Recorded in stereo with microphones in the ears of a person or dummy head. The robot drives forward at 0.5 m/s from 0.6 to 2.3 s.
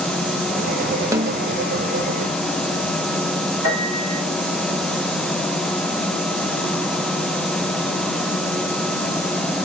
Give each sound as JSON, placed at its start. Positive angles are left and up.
{"t": 1.1, "sound": "a snare drum", "side_deg": -20, "distance_m": 0.7}
{"t": 3.6, "sound": "a piano", "side_deg": -65, "distance_m": 5.0}